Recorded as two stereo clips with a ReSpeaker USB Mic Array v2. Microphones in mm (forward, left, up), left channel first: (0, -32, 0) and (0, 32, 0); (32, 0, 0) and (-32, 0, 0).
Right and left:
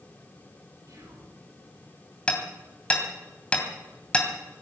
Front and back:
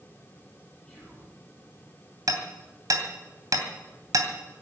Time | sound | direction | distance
0.9 | whispering | 75° left | 10 m
2.3 | hammering | 160° right | 2.5 m